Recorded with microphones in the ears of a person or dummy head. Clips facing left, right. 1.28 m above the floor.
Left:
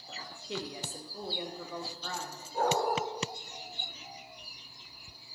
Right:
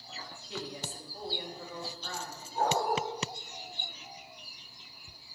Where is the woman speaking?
45° left (ahead or behind), 0.7 m; by 2.4 s 60° left (ahead or behind), 1.5 m.